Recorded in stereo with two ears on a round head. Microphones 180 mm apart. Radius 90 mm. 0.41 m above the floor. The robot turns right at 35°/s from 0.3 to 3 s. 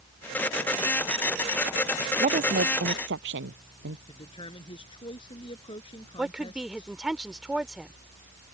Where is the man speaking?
25° left (ahead or behind).